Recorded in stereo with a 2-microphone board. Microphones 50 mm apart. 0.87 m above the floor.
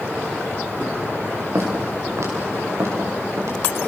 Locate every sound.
1.6 s footsteps: 65° right (ahead or behind), 6 m; by 3.6 s 70° right (ahead or behind), 7 m